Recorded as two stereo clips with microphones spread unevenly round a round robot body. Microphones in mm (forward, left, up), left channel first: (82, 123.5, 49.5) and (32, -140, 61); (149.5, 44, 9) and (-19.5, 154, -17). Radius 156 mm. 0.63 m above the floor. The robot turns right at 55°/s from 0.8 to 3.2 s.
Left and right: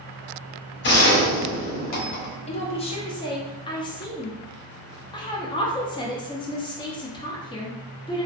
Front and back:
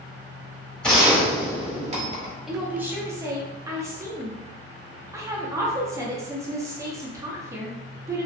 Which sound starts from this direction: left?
A woman speaking, at 2.5 s.